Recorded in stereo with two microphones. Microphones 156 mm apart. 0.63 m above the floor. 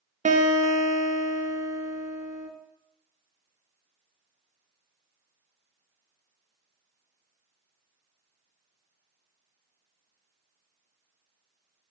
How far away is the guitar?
About 0.5 m.